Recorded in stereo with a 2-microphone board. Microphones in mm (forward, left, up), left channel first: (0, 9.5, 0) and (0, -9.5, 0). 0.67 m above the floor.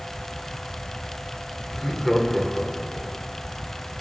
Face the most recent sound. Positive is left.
turn(degrees=10)  # may be behind; listen again after turning